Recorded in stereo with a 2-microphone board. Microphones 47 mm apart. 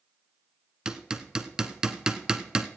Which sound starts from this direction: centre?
Hammering, at 0.8 s.